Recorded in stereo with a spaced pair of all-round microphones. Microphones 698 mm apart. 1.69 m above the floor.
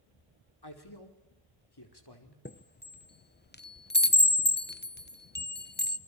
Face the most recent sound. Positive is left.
turn(degrees=15)  # may be behind; listen again after turning